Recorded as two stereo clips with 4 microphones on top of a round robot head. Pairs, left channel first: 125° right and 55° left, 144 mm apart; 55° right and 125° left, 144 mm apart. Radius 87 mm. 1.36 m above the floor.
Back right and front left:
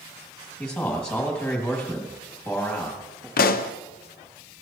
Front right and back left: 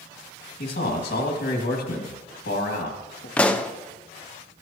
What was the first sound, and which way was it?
A man speaking, 45° right.